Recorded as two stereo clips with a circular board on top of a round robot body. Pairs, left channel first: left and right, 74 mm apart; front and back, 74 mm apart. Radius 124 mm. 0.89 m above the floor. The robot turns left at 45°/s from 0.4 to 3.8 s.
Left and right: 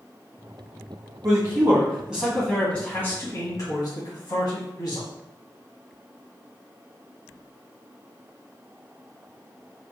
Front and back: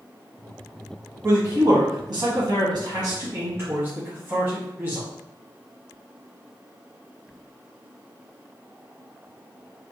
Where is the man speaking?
130° right, 1.4 m; by 5.1 s 115° left, 1.4 m.